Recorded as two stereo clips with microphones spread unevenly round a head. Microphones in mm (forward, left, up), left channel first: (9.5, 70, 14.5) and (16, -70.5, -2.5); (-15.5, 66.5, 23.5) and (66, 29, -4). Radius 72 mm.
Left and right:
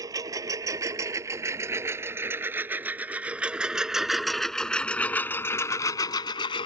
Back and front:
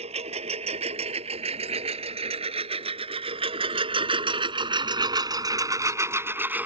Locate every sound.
0.0 s a lawn mower: 20° right; by 6.7 s 55° left